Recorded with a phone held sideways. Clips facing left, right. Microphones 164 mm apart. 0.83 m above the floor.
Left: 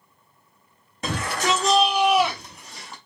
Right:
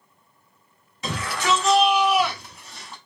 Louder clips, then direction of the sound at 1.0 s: Even; 50° left (ahead or behind).